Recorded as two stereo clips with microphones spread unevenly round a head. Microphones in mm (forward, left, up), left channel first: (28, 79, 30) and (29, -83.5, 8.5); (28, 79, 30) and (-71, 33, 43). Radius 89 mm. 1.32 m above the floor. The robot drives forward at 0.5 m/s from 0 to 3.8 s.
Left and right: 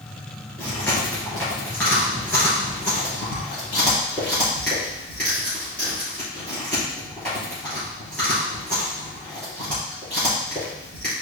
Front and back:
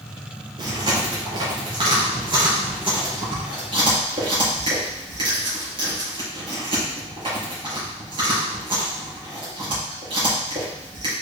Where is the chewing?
170° left, 3 m; by 11.1 s 175° left, 4.5 m.